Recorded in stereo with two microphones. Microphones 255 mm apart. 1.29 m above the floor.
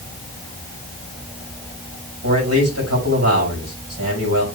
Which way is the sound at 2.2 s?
80° right.